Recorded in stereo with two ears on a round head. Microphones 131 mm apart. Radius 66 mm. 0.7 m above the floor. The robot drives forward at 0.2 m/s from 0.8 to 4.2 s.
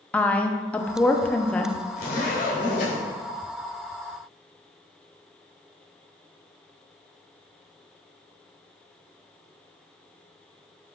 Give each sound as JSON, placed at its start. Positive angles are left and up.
{"t": 0.1, "sound": "a woman speaking", "side_deg": 10, "distance_m": 0.5}
{"t": 2.0, "sound": "a zipper", "side_deg": 60, "distance_m": 2.5}